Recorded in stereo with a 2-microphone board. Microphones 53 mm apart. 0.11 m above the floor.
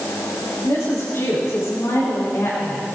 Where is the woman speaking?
75° left (ahead or behind), 7 m; by 3.0 s 70° left (ahead or behind), 5 m.